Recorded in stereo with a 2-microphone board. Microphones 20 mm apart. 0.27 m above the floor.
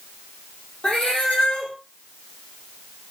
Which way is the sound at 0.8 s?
70° left (ahead or behind).